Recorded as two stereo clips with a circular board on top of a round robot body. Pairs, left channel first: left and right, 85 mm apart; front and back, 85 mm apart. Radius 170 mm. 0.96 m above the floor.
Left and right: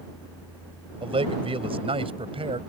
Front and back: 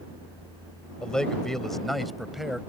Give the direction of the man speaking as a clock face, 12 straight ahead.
3 o'clock.